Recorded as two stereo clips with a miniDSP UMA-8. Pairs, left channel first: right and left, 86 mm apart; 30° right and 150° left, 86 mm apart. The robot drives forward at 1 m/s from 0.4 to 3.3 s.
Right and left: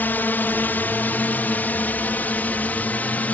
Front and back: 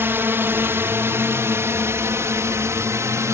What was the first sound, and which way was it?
A drone, 155° right.